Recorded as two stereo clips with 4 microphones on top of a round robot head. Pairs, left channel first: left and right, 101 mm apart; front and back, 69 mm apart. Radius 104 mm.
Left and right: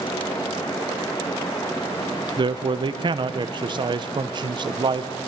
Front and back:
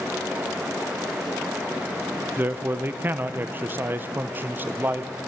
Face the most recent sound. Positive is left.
turn(degrees=-125)